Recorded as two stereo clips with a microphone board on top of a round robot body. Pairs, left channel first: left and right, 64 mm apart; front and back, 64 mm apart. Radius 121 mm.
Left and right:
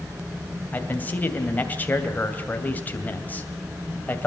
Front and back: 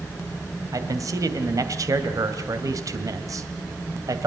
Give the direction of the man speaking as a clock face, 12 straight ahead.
7 o'clock.